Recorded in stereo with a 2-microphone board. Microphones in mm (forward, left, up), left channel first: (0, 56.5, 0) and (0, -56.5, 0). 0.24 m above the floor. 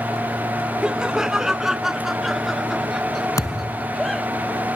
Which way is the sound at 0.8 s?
5° right (ahead or behind).